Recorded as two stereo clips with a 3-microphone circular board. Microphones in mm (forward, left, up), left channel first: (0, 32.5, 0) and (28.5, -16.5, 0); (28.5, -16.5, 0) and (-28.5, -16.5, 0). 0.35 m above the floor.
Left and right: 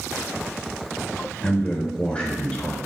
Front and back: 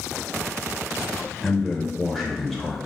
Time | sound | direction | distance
1.4 | a man speaking | 80° left | 1.0 m